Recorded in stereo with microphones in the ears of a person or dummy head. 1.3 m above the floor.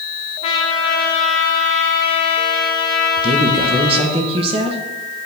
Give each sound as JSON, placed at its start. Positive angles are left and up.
{"t": 0.4, "sound": "a trumpet", "side_deg": 35, "distance_m": 1.3}
{"t": 3.2, "sound": "a woman speaking", "side_deg": -30, "distance_m": 1.2}